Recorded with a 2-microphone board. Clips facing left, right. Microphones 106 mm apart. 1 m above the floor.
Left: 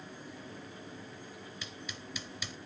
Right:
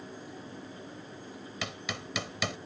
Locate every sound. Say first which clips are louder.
1.6 s hammering: right 7 dB; 80° right